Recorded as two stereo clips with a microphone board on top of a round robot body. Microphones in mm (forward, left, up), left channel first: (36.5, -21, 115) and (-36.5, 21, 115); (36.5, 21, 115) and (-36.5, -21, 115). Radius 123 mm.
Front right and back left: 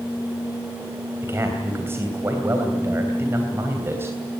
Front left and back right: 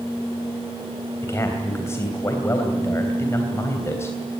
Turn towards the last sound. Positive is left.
turn(degrees=90)